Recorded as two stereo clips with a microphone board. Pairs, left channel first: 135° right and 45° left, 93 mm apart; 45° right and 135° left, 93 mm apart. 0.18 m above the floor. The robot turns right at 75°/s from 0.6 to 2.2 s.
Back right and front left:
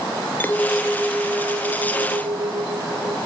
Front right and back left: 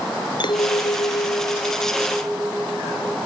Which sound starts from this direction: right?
A clink, at 0.4 s.